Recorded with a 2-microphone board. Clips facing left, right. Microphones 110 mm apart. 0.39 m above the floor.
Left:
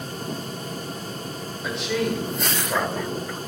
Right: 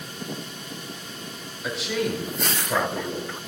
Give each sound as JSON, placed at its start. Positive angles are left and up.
{"t": 1.6, "sound": "a man speaking", "side_deg": 0, "distance_m": 1.5}